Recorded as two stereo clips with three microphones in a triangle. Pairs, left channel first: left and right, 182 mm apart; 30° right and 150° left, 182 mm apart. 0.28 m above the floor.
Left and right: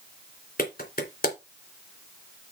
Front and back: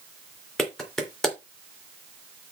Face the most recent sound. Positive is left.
turn(degrees=60)